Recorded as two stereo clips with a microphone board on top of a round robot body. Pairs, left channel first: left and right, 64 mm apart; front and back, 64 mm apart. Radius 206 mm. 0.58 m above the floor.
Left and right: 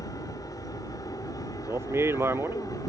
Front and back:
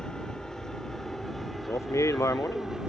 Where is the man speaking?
40° right.